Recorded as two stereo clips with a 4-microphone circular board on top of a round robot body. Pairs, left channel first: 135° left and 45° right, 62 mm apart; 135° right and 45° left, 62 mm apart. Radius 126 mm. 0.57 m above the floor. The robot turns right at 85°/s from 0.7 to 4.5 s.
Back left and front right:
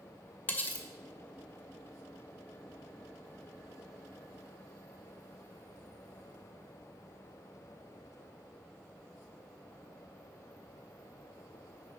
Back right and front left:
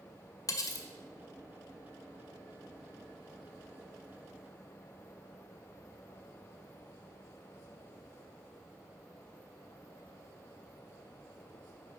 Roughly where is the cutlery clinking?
Behind.